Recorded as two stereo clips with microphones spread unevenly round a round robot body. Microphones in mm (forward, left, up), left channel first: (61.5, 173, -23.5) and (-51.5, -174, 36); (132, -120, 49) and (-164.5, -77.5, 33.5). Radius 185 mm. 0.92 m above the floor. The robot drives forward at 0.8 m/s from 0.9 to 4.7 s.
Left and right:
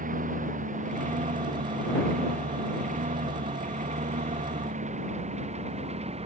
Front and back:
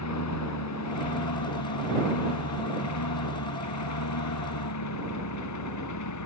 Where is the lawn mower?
40° right; by 6.2 s 35° right.